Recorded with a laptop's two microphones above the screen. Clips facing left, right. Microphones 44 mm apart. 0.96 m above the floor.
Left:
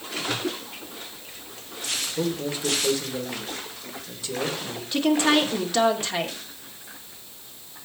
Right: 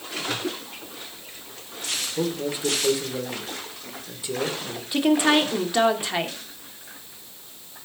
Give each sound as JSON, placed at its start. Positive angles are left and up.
{"t": 2.2, "sound": "a man speaking", "side_deg": -20, "distance_m": 3.5}
{"t": 4.9, "sound": "a woman speaking", "side_deg": -15, "distance_m": 2.5}